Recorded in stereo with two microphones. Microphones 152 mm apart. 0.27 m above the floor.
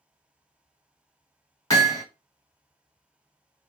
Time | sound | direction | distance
1.7 | hammering | 25° left (ahead or behind) | 1.3 m